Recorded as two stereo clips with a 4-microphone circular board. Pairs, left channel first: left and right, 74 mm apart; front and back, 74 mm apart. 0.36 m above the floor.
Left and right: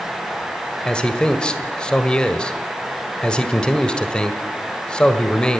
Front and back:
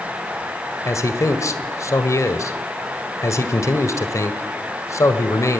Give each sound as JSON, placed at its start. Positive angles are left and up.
{"t": 0.8, "sound": "a man speaking", "azimuth_deg": 15, "distance_m": 1.5}